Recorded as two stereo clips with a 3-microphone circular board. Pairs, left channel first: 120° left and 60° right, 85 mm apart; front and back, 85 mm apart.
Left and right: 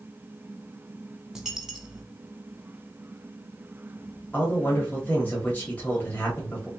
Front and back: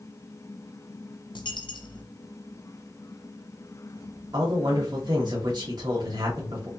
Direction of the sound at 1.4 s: 25° left.